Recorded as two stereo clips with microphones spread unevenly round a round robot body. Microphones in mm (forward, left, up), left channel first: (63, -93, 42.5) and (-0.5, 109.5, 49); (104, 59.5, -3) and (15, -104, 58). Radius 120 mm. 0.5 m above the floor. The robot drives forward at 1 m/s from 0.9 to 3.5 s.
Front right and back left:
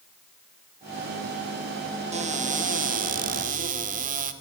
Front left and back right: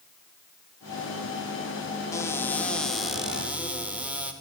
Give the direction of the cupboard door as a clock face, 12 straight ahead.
9 o'clock.